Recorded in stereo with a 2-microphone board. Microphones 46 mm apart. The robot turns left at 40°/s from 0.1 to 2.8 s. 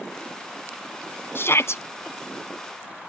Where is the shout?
55° left (ahead or behind); by 1.8 s 75° left (ahead or behind).